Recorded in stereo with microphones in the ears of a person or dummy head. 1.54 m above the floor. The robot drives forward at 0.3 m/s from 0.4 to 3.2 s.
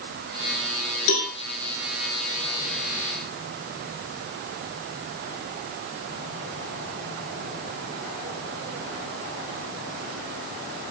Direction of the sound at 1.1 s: 80° left.